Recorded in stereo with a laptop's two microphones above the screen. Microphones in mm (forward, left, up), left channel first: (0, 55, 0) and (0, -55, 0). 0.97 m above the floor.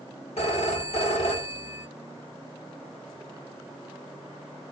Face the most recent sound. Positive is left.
turn(degrees=65)  # may be behind; listen again after turning